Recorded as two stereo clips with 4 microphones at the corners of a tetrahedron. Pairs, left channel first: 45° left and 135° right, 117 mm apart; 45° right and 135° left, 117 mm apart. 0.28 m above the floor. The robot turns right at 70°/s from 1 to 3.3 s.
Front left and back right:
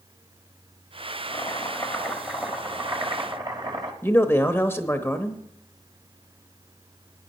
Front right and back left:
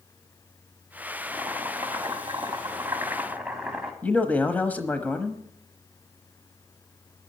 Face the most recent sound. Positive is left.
turn(degrees=5)